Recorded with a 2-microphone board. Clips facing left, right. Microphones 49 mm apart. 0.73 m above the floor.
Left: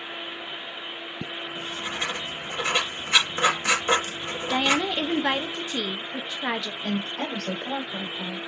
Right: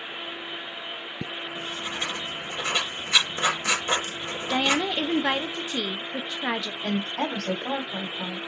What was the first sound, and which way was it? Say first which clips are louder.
Writing: left 1 dB; 35° left (ahead or behind).